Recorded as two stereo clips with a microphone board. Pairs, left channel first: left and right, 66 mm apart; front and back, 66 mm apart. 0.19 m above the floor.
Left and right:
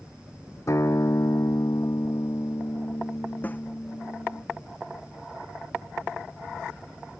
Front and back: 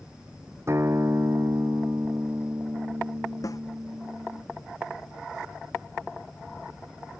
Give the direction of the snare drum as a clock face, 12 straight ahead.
11 o'clock.